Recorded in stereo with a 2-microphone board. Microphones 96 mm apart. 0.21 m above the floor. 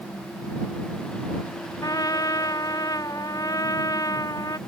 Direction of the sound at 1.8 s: 40° left (ahead or behind).